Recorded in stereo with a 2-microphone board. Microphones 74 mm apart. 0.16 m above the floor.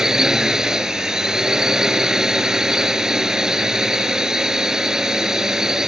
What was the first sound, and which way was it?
A drone, 5° right (ahead or behind).